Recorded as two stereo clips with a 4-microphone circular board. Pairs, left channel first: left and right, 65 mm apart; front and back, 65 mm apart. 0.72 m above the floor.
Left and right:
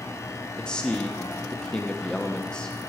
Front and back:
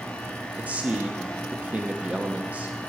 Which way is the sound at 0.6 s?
150° left.